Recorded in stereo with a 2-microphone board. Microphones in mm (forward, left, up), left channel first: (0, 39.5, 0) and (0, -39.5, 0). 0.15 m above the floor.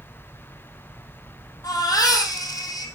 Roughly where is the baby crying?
Left.